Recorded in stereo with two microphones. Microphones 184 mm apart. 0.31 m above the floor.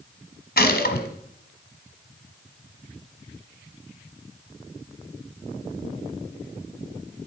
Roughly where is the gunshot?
Left.